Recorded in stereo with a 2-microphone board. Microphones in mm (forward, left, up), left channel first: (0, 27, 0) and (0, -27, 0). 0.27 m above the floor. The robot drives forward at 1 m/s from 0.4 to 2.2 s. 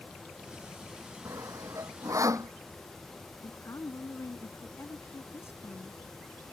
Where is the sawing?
70° right (ahead or behind); by 2.5 s 75° right (ahead or behind).